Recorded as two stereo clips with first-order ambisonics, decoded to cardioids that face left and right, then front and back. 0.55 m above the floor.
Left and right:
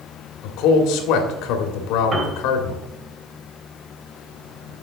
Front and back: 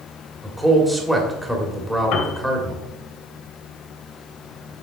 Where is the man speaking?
90° left, 2.0 m.